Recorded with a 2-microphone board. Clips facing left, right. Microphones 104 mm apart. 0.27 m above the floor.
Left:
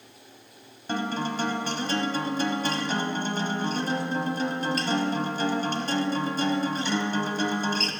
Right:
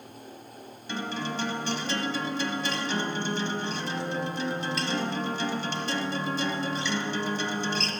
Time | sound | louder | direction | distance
0.9 | a guitar | left 4 dB | 45° left (ahead or behind) | 1.2 m